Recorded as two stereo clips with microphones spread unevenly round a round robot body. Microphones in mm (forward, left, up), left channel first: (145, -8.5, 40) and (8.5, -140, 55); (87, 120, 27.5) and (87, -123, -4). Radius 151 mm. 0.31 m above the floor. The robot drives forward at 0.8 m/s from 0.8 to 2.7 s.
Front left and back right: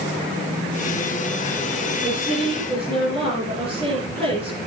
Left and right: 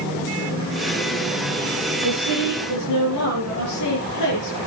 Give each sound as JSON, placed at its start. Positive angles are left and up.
{"t": 2.0, "sound": "a woman speaking", "azimuth_deg": 120, "distance_m": 7.0}